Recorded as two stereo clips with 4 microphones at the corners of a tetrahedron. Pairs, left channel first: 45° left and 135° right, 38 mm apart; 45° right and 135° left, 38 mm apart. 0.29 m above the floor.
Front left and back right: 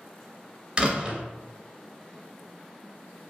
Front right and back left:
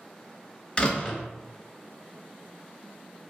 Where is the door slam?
85° right, 0.6 m.